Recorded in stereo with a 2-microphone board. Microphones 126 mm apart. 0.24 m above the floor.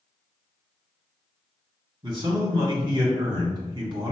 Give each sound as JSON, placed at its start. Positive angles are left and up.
{"t": 2.0, "sound": "a man speaking", "side_deg": -40, "distance_m": 1.9}